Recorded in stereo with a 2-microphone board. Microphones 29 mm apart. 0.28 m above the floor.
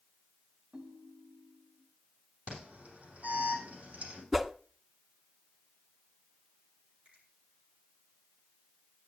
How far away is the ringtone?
About 1.4 m.